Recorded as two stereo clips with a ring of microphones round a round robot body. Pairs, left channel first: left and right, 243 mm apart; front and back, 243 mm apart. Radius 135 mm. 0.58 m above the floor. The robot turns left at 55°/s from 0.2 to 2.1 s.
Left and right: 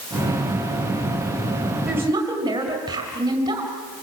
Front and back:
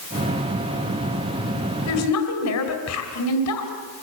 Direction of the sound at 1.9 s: Straight ahead.